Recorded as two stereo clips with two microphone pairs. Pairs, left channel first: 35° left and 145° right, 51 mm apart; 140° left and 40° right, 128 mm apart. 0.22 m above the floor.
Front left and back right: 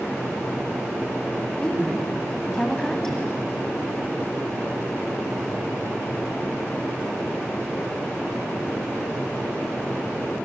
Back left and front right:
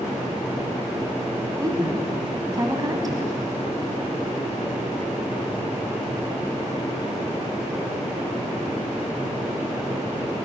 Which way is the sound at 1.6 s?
35° right.